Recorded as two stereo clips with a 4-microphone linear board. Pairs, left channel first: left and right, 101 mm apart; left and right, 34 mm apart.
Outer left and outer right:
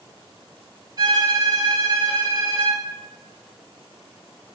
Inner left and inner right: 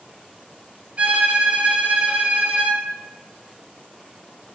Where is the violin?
45° right (ahead or behind), 0.6 m.